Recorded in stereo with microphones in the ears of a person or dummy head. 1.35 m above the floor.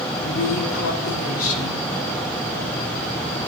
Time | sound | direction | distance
0.2 | a woman speaking | 85° left | 4 m